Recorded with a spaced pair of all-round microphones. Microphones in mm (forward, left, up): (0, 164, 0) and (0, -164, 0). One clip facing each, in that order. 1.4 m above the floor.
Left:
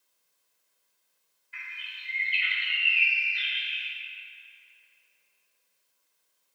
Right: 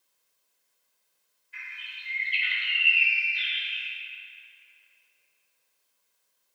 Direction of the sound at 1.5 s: 65° left (ahead or behind).